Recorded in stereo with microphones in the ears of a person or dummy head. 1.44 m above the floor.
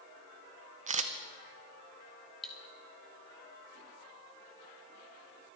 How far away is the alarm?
No alarm in this recording.